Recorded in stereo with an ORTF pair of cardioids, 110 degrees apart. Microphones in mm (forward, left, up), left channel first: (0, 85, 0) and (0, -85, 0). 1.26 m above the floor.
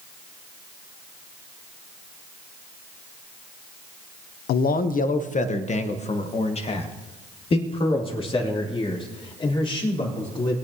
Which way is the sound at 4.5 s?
70° left.